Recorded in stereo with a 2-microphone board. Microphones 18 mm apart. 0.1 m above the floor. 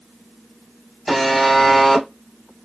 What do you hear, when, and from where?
1.1 s a buzzer: centre (ahead or behind), 1.7 m